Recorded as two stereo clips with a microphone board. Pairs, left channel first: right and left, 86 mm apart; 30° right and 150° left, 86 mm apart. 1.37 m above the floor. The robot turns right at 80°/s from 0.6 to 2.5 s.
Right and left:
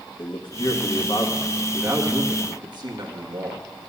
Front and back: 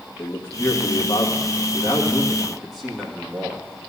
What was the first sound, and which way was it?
A man speaking, 95° right.